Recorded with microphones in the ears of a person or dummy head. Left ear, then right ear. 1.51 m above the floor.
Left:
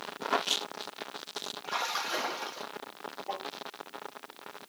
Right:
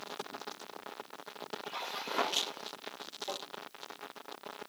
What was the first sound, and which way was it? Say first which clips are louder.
A splash: left 8 dB; 65° left (ahead or behind).